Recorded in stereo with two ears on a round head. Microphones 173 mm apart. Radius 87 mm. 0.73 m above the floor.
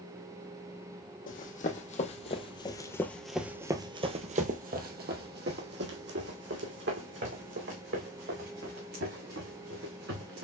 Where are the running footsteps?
45° left (ahead or behind), 1.4 m; by 10.4 s 65° right (ahead or behind), 4 m.